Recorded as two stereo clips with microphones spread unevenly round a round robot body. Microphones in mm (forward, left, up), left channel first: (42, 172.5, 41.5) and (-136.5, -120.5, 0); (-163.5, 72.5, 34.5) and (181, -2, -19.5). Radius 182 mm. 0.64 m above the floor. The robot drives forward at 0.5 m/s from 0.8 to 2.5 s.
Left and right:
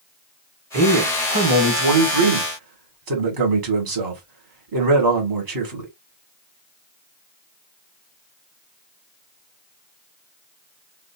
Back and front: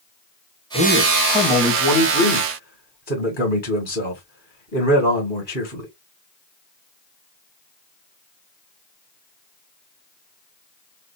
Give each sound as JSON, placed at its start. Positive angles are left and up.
{"t": 0.7, "sound": "a man speaking", "azimuth_deg": -100, "distance_m": 1.9}